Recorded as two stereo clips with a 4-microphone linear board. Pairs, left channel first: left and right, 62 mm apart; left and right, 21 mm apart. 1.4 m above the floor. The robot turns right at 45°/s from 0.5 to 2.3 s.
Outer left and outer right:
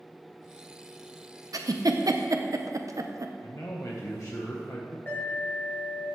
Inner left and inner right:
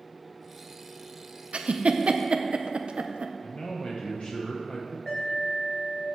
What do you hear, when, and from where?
1.5 s a giggle: 75° right (ahead or behind), 0.6 m; by 3.3 s 65° right (ahead or behind), 0.6 m
3.4 s a man speaking: 55° left (ahead or behind), 1.2 m
5.1 s an alarm: 35° left (ahead or behind), 2 m